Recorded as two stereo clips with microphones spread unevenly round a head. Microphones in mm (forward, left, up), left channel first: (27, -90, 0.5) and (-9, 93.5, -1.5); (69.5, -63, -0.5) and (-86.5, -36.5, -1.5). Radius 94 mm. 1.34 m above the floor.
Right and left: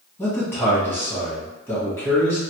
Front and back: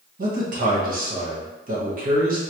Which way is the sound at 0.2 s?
160° right.